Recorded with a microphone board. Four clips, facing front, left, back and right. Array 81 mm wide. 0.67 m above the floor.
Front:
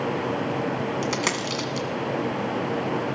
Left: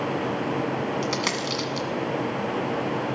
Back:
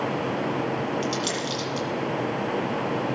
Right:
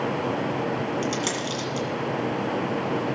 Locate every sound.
1.0 s a dropped coin: 30° left, 1.8 m